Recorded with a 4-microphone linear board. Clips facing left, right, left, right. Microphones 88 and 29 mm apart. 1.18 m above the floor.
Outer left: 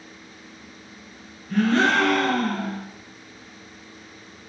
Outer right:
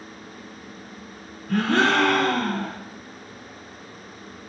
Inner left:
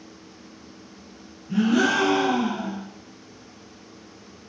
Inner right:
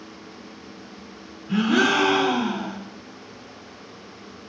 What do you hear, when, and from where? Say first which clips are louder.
1.5 s a gasp: outer left 1 dB, inner right 1 dB; 65° right (ahead or behind), 3 m